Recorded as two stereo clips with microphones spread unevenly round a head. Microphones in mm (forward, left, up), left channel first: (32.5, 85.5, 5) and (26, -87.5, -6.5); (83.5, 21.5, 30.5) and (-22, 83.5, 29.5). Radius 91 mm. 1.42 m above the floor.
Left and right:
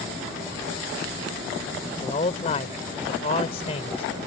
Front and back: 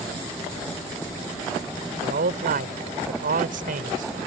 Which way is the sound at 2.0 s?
150° left.